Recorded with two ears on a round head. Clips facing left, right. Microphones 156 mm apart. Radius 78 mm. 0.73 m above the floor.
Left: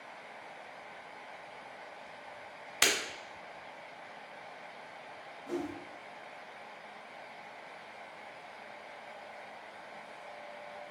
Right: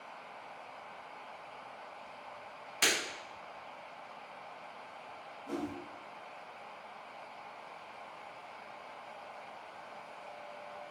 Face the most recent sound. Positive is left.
turn(degrees=15)  # may be behind; listen again after turning